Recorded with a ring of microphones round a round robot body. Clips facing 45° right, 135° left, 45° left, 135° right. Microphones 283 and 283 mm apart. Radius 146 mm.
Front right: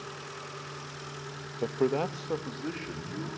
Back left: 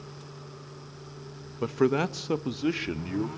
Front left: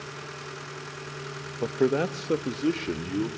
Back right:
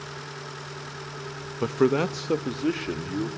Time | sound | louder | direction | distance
1.6 | a man speaking | back left 3 dB, back right 2 dB | 170° right | 0.9 m